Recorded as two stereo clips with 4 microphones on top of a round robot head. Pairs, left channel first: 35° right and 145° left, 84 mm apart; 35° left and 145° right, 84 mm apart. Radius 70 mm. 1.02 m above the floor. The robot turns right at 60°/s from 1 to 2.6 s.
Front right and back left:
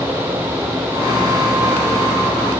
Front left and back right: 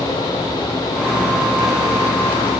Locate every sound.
Only background noise.